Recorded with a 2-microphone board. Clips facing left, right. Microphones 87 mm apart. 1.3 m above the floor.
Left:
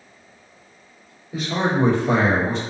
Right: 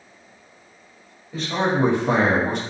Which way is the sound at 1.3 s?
10° left (ahead or behind).